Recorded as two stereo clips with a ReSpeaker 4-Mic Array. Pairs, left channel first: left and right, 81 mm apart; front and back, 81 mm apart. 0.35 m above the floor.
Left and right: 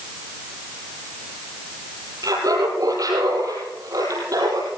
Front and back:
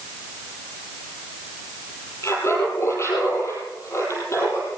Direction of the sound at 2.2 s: 55° right.